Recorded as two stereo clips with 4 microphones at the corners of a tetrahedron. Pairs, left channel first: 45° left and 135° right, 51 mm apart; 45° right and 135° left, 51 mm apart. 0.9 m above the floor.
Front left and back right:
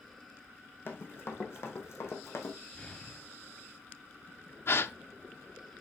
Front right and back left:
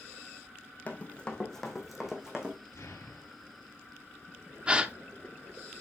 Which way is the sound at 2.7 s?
25° right.